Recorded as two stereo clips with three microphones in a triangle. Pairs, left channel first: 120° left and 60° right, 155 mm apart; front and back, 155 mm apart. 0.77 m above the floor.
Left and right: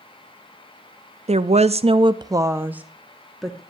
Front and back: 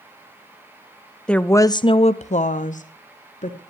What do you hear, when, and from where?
1.3 s a woman speaking: 85° right, 0.6 m; by 3.6 s 30° left, 1.1 m